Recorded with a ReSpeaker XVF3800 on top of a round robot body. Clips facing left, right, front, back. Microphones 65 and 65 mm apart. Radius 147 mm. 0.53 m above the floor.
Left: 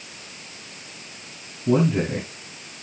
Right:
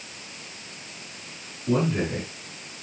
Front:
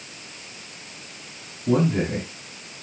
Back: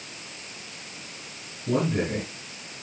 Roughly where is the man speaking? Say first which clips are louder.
Left 4 dB, front 4 dB; ahead left.